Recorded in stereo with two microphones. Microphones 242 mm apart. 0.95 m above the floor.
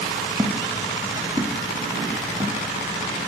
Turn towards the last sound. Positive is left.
turn(degrees=-25)  # may be behind; listen again after turning